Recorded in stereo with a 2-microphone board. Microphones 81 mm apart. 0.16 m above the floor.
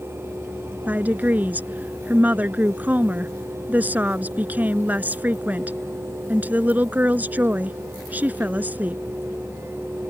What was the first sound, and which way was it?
A woman speaking, 20° right (ahead or behind).